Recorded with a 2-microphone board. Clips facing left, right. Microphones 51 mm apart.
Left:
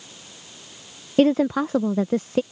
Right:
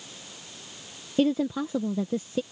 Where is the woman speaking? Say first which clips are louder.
Left 6 dB; 75° left (ahead or behind).